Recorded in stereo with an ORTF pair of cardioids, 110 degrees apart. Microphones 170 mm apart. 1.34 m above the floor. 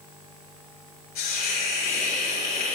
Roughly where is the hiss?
Left.